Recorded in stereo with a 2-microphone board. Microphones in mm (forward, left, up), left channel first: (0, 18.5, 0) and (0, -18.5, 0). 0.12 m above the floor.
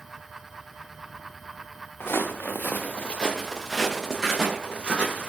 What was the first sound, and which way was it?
Footsteps, 85° left.